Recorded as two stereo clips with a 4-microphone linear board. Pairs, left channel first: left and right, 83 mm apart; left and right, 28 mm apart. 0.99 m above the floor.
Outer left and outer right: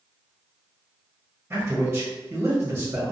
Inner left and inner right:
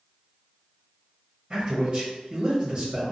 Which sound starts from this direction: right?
A man speaking, at 1.5 s.